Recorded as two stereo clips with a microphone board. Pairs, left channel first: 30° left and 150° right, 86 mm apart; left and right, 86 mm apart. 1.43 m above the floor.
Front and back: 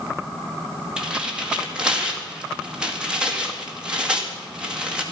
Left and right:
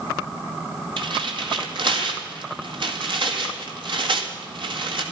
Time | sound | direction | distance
1.0 | tearing paper | 70° right | 1.9 m